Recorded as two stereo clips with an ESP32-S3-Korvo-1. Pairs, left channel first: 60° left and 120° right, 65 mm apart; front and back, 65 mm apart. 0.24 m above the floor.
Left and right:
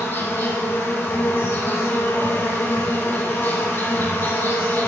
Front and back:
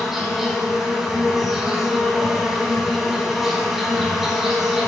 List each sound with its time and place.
0.0 s an insect: 95° left, 1.5 m